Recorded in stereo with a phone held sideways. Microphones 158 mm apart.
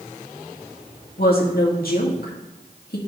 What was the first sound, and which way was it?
A woman speaking, 75° left (ahead or behind).